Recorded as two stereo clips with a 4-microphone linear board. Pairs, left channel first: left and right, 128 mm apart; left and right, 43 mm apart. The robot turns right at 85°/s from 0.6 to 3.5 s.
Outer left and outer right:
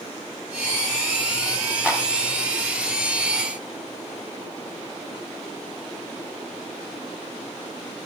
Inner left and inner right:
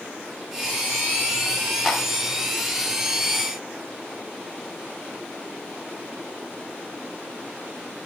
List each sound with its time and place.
1.9 s a clap: 10° right (ahead or behind), 2.5 m; by 2.0 s 5° left (ahead or behind), 2.5 m